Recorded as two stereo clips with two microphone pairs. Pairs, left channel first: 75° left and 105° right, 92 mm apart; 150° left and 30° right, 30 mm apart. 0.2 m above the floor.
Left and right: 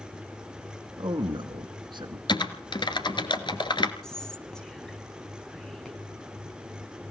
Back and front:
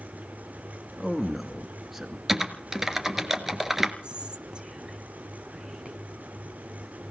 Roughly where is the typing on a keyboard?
Ahead left.